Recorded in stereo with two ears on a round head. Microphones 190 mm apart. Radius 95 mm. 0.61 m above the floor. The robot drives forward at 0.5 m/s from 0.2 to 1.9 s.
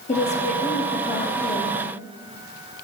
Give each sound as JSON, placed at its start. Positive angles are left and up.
{"t": 0.1, "sound": "a woman speaking", "side_deg": 30, "distance_m": 0.6}